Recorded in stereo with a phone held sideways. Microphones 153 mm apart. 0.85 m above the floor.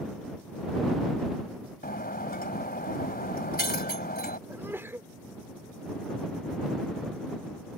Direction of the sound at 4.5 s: 15° right (ahead or behind).